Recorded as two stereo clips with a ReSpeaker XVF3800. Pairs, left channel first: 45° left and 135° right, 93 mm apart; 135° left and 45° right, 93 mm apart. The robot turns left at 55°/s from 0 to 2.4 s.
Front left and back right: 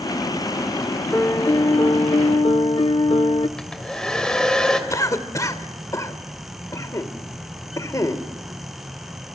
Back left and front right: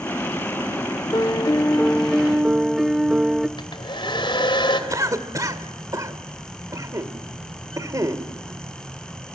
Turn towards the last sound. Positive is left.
turn(degrees=0)